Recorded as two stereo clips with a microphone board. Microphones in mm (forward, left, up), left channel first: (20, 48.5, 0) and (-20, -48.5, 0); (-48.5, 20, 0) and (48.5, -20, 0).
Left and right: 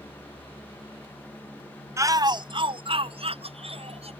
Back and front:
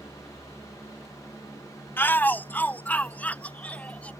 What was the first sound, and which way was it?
A shout, 145° right.